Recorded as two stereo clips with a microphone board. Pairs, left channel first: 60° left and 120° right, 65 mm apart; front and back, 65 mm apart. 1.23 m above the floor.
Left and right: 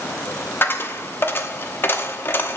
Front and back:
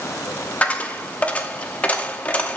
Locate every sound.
0.6 s a dropped coin: 50° left, 0.8 m